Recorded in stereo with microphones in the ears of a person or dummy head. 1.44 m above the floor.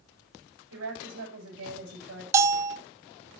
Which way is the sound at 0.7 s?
85° right.